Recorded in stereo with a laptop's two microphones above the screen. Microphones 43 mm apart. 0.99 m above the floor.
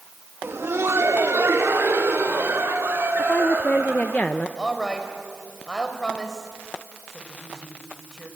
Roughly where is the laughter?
Right.